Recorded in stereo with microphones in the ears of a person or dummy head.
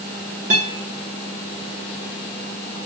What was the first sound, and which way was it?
A guitar, 40° right (ahead or behind).